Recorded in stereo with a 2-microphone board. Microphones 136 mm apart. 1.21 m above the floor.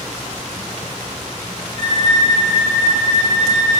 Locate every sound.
1.8 s a violin: 60° right (ahead or behind), 0.8 m